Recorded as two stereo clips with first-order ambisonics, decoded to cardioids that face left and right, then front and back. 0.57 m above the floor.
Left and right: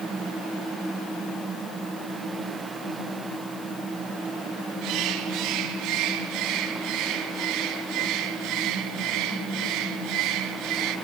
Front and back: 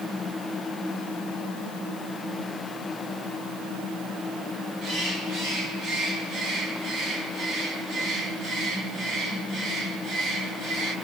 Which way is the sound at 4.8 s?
120° right.